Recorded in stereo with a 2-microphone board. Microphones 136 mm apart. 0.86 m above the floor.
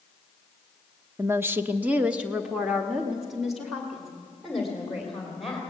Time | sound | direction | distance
1.2 | a woman speaking | 20° right (ahead or behind) | 0.7 m